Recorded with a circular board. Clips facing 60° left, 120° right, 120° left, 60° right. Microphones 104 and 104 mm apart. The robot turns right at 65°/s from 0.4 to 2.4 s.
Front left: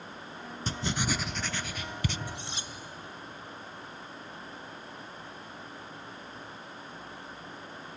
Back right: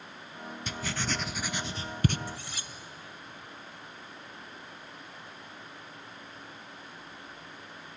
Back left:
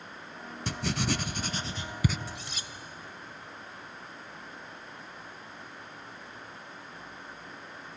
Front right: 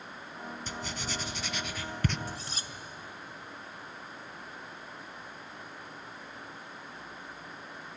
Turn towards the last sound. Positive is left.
turn(degrees=-5)